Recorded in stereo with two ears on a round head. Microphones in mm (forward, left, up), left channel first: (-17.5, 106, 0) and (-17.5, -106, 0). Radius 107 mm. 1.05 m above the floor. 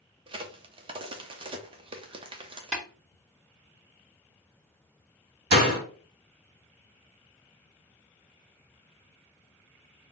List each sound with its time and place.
0.3 s a crack: 20° right (ahead or behind), 0.6 m
2.7 s tapping: centre (ahead or behind), 2 m
5.5 s a door slam: 45° right (ahead or behind), 1.7 m